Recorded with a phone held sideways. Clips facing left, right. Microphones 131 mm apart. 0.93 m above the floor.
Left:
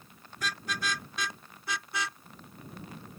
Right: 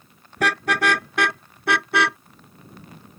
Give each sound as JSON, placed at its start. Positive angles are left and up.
{"t": 0.4, "sound": "a car horn", "side_deg": -75}